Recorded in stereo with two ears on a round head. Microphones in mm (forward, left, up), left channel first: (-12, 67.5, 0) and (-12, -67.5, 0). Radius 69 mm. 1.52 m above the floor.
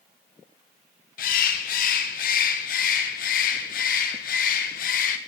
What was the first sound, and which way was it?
A bird, 70° left (ahead or behind).